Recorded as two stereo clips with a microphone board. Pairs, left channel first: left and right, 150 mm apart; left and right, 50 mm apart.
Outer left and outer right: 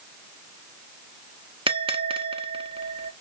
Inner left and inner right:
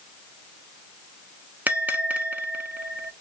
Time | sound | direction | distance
1.7 | a bell | 40° right (ahead or behind) | 0.6 m